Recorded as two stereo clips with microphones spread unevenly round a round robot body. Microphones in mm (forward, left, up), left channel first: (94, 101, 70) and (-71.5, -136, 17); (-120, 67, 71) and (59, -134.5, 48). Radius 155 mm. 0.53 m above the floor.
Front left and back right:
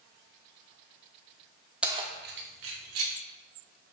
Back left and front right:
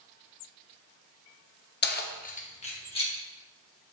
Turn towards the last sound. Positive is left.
turn(degrees=-155)